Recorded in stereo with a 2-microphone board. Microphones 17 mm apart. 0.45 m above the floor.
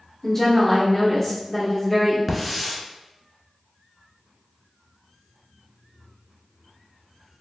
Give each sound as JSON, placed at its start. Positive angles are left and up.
{"t": 0.2, "sound": "a woman speaking", "side_deg": 15, "distance_m": 0.8}
{"t": 2.3, "sound": "a hiss", "side_deg": -5, "distance_m": 0.8}